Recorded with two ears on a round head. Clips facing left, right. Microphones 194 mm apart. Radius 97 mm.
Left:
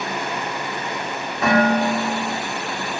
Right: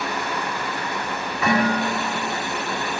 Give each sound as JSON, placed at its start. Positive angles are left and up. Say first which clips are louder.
{"t": 1.4, "sound": "dishes clattering", "louder": "left 4 dB", "side_deg": 40, "distance_m": 1.8}